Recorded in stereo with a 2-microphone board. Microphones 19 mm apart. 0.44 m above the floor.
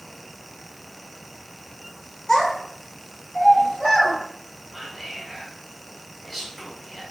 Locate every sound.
2.3 s a child speaking: 35° left (ahead or behind), 0.8 m; by 4.2 s 75° left (ahead or behind), 1.7 m
4.7 s whispering: 20° left (ahead or behind), 1.0 m